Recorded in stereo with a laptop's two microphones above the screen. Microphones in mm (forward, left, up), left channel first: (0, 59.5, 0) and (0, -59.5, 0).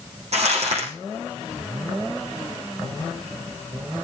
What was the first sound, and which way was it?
Crumpling, 60° right (ahead or behind).